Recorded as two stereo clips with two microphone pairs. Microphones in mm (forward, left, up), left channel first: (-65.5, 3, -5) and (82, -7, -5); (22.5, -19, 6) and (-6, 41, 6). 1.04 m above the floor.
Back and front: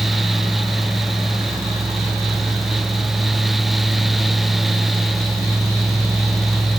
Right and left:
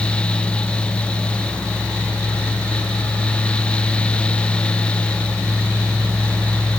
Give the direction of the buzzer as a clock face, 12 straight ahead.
No buzzer in this recording.